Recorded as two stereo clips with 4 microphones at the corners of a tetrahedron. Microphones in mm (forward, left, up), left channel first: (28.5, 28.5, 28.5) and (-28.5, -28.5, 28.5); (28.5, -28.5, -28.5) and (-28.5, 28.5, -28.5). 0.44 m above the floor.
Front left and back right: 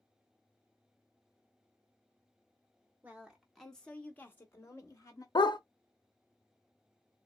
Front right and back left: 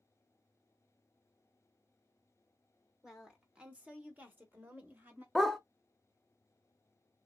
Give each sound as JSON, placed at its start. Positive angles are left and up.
{"t": 3.0, "sound": "a woman speaking", "azimuth_deg": -150, "distance_m": 1.2}
{"t": 5.3, "sound": "a dog barking", "azimuth_deg": 45, "distance_m": 0.5}